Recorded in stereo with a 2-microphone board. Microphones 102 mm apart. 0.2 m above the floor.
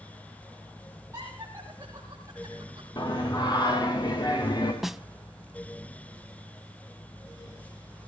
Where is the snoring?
I don't hear snoring.